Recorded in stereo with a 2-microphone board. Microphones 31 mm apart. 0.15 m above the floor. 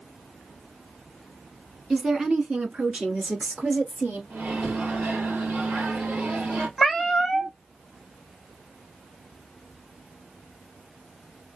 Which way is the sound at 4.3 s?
60° right (ahead or behind).